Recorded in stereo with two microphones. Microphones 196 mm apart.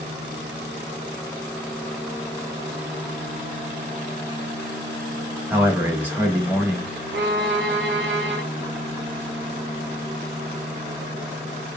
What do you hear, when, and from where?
5.5 s a man speaking: 10° right (ahead or behind), 0.9 m
7.1 s a violin: 75° right (ahead or behind), 0.6 m